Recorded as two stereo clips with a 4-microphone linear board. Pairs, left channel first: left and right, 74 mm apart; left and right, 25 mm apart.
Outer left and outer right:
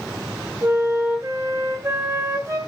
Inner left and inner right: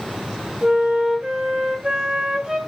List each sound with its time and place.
0.6 s a flute: 45° right (ahead or behind), 4 m